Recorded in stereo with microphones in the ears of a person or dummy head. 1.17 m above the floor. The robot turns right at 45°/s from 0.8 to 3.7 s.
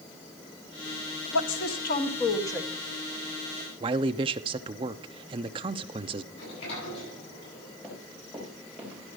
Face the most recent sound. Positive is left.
turn(degrees=0)  # may be behind; listen again after turning